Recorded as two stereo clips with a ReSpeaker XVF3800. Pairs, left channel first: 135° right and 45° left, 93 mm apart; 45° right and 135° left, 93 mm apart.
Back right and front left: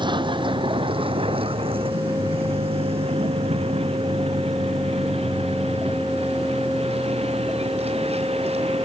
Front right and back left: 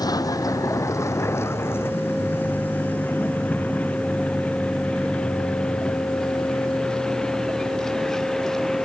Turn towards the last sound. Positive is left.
turn(degrees=40)